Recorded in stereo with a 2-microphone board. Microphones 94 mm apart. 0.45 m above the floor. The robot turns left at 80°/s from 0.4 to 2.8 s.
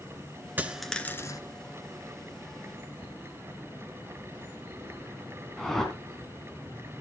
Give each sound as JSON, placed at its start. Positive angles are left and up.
{"t": 0.6, "sound": "a dropped coin", "azimuth_deg": -160, "distance_m": 1.0}
{"t": 3.0, "sound": "a cupboard door", "side_deg": -10, "distance_m": 3.5}
{"t": 5.6, "sound": "a whoosh", "side_deg": 5, "distance_m": 2.5}